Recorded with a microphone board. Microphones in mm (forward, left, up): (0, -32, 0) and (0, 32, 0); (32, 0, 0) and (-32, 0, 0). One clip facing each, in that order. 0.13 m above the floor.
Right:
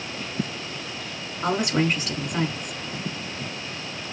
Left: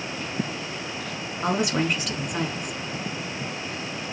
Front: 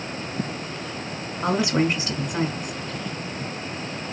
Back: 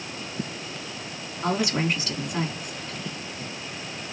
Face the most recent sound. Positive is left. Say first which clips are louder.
# right 1 dB, front 3 dB
turn(degrees=5)